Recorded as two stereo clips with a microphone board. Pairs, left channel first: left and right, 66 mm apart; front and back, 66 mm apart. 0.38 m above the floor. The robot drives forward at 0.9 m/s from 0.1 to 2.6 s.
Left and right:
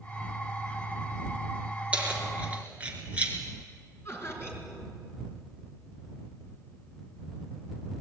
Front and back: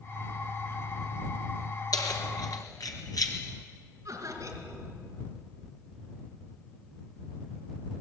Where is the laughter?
140° left, 5 m.